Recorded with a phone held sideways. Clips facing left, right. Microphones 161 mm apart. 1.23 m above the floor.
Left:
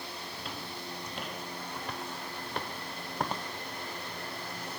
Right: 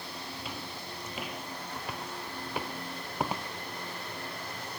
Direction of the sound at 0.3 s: 5° right (ahead or behind).